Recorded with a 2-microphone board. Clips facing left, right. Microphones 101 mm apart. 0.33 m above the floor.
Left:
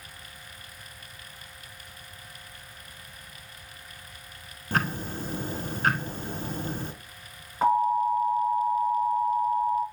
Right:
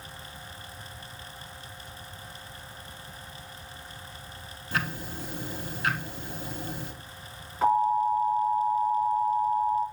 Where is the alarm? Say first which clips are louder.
Even; 35° left (ahead or behind), 5 m.